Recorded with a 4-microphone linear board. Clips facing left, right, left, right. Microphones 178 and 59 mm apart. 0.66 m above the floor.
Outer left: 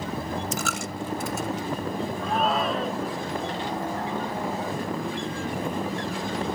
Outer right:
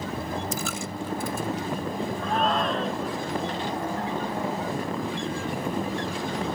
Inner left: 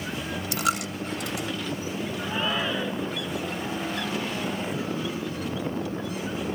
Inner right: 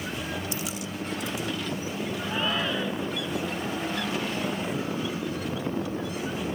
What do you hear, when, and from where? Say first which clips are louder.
0.5 s a dropped coin: outer left 1 dB, inner left 6 dB; 75° left (ahead or behind)
2.2 s a shout: even, inner left 1 dB; 5° left (ahead or behind)